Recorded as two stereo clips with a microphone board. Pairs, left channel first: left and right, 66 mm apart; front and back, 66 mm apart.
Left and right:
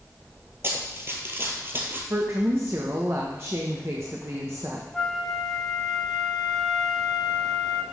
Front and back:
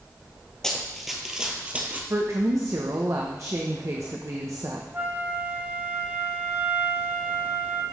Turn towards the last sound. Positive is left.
turn(degrees=170)